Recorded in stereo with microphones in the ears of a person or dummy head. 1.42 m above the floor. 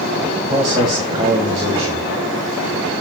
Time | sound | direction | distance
0.5 | a man speaking | 20° right (ahead or behind) | 2 m